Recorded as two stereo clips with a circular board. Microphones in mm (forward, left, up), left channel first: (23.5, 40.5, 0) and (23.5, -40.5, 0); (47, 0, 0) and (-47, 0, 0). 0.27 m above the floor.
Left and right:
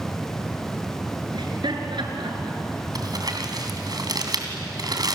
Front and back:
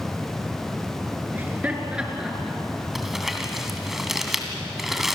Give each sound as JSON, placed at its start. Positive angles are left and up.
{"t": 1.3, "sound": "laughter", "azimuth_deg": -110, "distance_m": 4.5}
{"t": 3.0, "sound": "crumpling", "azimuth_deg": -95, "distance_m": 2.5}